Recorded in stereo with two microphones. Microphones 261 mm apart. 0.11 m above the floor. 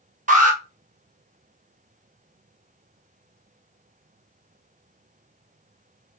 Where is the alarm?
30° right (ahead or behind), 1.5 m.